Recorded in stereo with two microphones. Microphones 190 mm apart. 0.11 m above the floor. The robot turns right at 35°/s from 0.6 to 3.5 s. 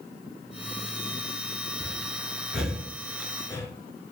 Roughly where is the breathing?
Centre.